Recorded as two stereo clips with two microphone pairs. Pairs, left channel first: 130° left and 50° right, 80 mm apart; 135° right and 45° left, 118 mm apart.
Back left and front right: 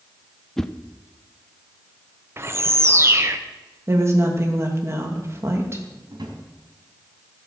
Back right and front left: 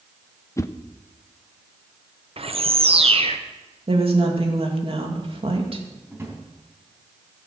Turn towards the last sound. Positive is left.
turn(degrees=-25)